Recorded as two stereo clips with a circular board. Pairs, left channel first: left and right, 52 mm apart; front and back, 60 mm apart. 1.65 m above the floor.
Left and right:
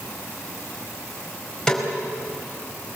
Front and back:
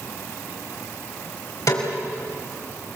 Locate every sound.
1.7 s a snare drum: 10° left, 5 m